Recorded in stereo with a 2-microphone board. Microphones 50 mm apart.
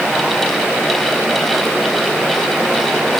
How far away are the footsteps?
No footsteps in this recording.